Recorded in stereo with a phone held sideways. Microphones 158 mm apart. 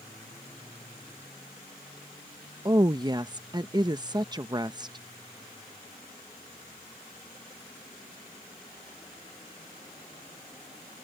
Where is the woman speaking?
25° right (ahead or behind).